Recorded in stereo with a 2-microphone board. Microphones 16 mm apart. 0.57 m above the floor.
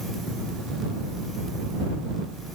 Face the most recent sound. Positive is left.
No sound to turn to.